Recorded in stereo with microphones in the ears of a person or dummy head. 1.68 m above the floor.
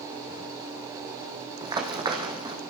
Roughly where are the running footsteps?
Right.